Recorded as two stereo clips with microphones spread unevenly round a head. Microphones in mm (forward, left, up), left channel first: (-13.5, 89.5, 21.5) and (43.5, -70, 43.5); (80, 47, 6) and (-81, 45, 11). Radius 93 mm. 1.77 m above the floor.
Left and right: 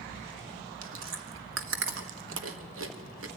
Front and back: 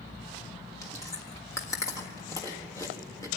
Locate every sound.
0.8 s chewing: 75° right, 1.4 m